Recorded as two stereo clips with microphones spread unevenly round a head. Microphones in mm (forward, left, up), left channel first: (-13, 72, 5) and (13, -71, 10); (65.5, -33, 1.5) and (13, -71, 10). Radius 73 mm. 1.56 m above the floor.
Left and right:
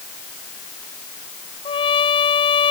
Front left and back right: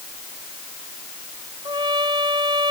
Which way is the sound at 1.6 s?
160° left.